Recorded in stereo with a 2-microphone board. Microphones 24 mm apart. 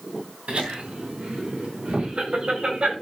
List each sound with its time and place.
0.5 s laughter: 55° right (ahead or behind), 5 m; by 2.9 s 45° right (ahead or behind), 6.5 m